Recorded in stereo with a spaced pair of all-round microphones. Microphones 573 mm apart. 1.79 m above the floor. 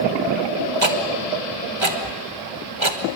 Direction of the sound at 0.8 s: 55° right (ahead or behind).